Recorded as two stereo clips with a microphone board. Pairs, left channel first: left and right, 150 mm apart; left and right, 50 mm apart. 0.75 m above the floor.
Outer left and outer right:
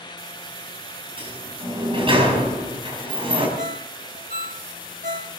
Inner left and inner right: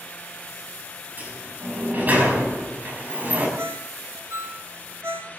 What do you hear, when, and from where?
1.2 s a sliding door: 35° right (ahead or behind), 5 m
3.6 s a ringtone: 65° right (ahead or behind), 1.8 m